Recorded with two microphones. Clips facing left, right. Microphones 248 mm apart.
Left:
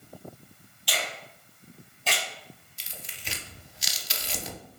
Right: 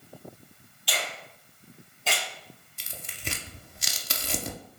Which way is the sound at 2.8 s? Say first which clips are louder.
Right 9 dB; 60° right (ahead or behind).